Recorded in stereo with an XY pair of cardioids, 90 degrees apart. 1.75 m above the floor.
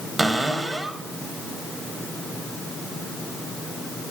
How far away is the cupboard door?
About 1.5 m.